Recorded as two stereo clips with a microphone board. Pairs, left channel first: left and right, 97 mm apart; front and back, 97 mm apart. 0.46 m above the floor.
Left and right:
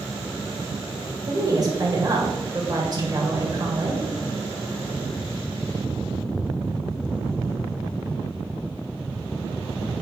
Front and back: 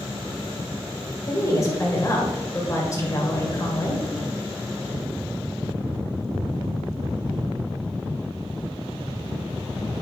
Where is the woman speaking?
50° right, 2 m.